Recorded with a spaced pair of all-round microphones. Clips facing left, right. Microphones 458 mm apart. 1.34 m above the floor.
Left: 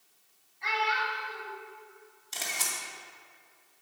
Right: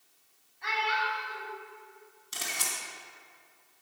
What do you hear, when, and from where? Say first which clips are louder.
0.6 s a child speaking: left 1 dB; 15° left (ahead or behind), 3.5 m
2.3 s a camera shutter: even; 30° right (ahead or behind), 2 m